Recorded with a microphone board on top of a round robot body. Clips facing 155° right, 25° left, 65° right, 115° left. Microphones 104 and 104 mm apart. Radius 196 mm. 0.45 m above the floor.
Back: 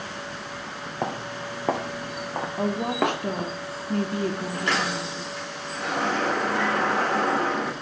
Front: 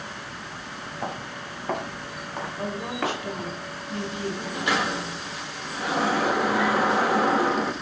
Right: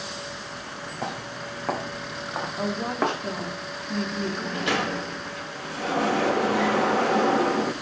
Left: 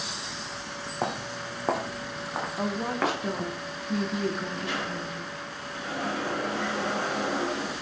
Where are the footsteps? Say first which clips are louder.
Back 4 dB, left 2 dB; 170° left, 2 m; by 3.2 s 135° right, 2.5 m.